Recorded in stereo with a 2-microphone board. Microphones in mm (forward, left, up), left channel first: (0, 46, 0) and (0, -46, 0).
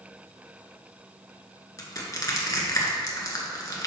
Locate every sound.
1.8 s crushing: 40° left (ahead or behind), 1.5 m